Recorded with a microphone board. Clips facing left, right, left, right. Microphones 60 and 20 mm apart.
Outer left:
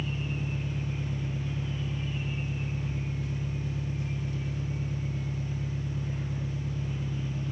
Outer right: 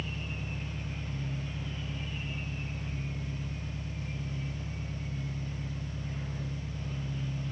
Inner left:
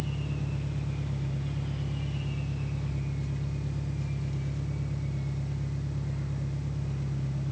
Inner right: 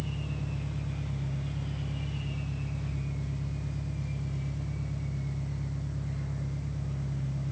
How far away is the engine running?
About 5 m.